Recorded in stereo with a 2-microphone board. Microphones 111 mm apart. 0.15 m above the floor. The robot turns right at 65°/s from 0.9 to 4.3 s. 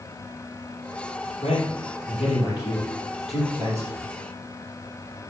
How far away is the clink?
No clink in this recording.